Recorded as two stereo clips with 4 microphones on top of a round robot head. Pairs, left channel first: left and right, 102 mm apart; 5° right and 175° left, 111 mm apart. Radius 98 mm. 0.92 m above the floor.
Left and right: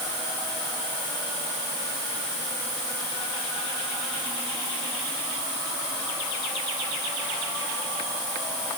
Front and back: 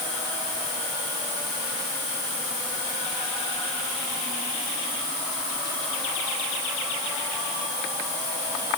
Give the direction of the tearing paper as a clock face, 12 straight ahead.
I don't hear tearing paper.